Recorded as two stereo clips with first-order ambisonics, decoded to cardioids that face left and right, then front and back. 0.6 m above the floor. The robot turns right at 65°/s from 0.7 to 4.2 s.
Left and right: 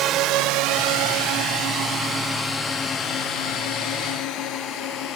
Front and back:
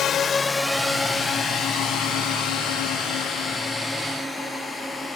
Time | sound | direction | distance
0.0 | a drone | 50° right | ?